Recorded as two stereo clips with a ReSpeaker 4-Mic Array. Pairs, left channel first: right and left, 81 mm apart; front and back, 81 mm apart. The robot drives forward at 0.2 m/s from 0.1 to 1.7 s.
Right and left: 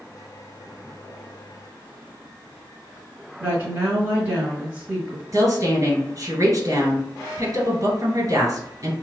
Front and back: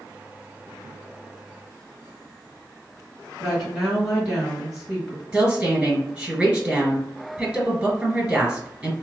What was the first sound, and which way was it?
A woman speaking, 100° left.